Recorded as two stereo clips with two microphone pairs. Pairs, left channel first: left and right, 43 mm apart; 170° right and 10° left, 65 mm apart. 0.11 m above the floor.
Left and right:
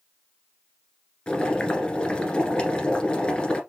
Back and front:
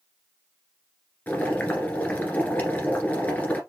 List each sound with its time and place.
1.3 s boiling: 135° left, 1.6 m